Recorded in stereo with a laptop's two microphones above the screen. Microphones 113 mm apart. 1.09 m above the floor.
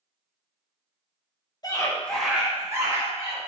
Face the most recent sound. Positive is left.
turn(degrees=-35)  # may be behind; listen again after turning